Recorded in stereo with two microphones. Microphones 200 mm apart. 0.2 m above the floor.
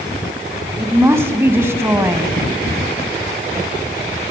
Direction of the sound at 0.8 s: 15° right (ahead or behind).